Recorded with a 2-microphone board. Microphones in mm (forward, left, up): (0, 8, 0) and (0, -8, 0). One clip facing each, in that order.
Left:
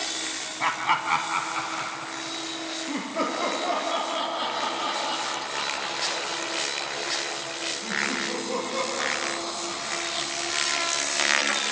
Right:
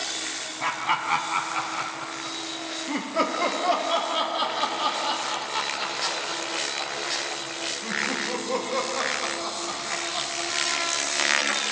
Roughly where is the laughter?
Centre.